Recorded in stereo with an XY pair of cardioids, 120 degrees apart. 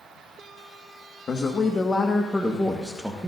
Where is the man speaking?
35° left, 1.5 m; by 3.3 s 10° right, 1.3 m.